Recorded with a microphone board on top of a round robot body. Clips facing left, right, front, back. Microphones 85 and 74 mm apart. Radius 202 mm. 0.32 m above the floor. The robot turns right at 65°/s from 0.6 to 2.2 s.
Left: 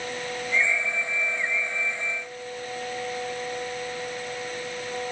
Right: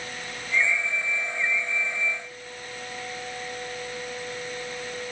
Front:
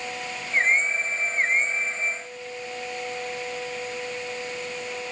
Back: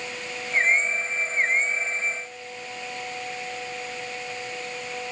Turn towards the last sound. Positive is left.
No sound to turn to.